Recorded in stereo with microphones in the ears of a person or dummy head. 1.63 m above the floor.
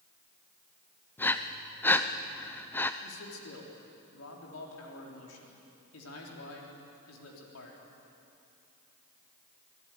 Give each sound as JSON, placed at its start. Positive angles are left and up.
{"t": 1.2, "sound": "breathing", "side_deg": 10, "distance_m": 0.7}
{"t": 3.0, "sound": "a man speaking", "side_deg": 85, "distance_m": 3.5}